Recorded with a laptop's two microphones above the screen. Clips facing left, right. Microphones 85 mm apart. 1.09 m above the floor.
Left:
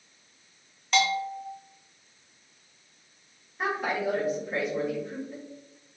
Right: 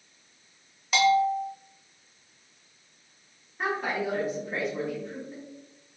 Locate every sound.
0.9 s a bell: 5° right (ahead or behind), 0.6 m
3.6 s a woman speaking: centre (ahead or behind), 1.2 m